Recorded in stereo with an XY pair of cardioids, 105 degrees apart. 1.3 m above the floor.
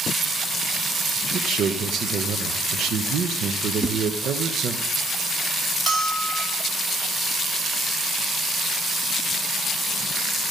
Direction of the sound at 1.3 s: 65° right.